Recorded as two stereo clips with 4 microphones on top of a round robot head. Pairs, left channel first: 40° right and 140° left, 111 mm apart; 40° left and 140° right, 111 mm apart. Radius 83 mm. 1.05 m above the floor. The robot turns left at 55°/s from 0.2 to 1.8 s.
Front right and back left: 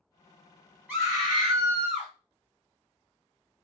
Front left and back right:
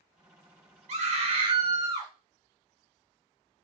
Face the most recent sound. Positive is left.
turn(degrees=-175)